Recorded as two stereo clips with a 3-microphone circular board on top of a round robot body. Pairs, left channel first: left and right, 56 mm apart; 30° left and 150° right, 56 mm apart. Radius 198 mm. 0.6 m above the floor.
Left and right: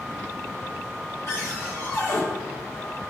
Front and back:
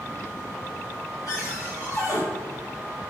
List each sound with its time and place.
1.3 s a cupboard door: 65° left, 1.8 m